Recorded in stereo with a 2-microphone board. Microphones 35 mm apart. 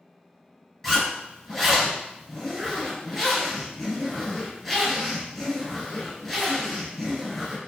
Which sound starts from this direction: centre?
A zipper, at 0.8 s.